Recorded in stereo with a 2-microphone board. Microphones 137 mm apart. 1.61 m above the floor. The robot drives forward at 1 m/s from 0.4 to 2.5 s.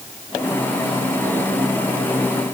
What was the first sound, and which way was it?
Only background noise.